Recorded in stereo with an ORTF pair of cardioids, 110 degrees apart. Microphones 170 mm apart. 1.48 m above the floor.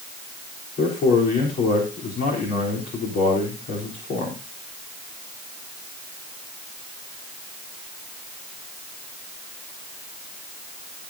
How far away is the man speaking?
About 4 m.